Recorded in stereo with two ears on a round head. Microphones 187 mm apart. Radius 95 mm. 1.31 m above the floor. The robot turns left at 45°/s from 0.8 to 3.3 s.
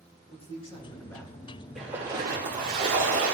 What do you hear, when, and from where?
0.3 s a man speaking: 25° left (ahead or behind), 1.8 m; by 1.3 s 5° left (ahead or behind), 1.8 m
1.8 s a splash: straight ahead, 3 m; by 3.4 s 70° right, 3 m